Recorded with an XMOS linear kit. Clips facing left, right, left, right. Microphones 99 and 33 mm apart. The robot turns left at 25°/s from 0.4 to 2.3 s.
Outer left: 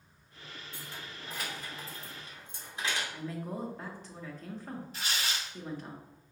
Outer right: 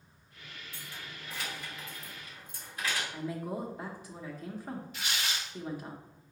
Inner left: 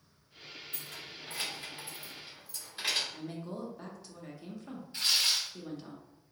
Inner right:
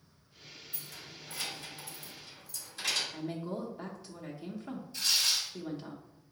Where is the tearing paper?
35° left (ahead or behind), 0.7 m.